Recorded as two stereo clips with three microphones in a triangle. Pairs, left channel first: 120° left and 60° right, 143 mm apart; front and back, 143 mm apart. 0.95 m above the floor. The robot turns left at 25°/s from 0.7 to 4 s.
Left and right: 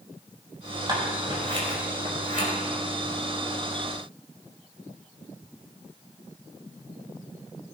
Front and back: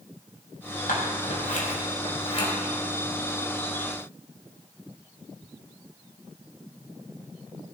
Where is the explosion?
I don't hear an explosion.